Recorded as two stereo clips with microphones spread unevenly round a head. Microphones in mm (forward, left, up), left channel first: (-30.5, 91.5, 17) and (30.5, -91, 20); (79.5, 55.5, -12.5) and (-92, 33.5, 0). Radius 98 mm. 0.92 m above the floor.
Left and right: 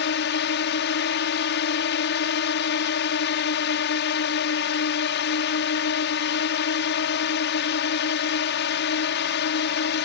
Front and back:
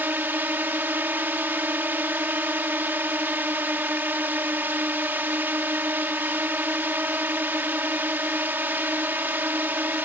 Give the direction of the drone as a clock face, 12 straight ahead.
8 o'clock.